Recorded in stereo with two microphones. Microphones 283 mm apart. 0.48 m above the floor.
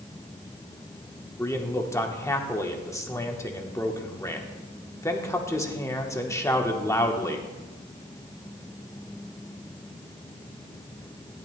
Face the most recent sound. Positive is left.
turn(degrees=10)  # may be behind; listen again after turning